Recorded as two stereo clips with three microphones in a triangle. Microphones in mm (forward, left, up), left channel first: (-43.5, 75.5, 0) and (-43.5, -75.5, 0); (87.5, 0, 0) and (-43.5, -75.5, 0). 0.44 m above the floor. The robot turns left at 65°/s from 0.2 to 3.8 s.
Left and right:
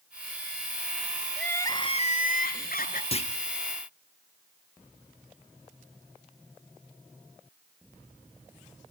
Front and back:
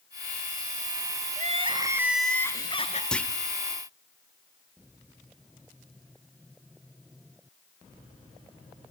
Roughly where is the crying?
Behind.